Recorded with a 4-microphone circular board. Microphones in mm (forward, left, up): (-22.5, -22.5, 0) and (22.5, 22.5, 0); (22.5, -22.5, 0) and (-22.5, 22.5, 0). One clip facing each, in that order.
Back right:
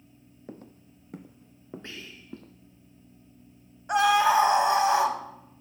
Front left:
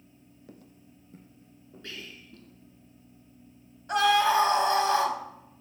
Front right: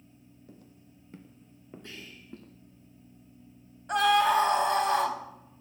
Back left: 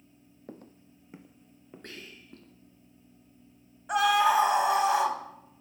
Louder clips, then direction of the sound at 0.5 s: Back right 7 dB, back left 8 dB; 170° left.